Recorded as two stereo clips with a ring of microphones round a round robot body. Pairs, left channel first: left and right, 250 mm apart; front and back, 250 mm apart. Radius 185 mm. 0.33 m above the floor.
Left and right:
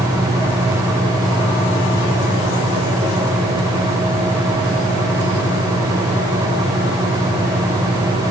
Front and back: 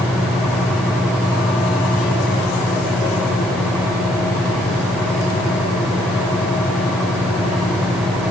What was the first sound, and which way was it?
Only background noise.